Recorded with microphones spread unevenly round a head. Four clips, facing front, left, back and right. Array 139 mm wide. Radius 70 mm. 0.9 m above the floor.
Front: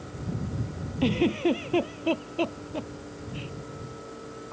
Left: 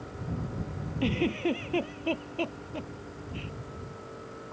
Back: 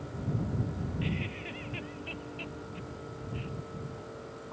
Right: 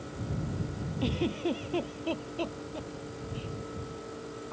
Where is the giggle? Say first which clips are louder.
Left 3 dB, front 19 dB; 10° left.